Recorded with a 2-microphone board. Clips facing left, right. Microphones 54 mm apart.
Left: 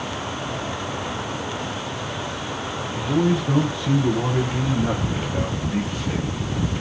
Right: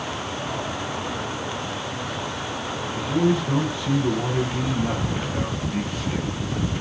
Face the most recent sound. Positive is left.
turn(degrees=25)  # may be behind; listen again after turning